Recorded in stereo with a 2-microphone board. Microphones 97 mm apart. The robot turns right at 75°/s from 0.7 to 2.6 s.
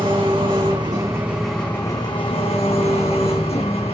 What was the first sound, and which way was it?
An engine running, 55° right.